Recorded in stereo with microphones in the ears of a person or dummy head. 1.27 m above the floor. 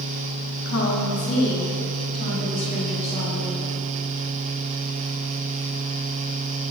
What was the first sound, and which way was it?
A woman speaking, 65° left (ahead or behind).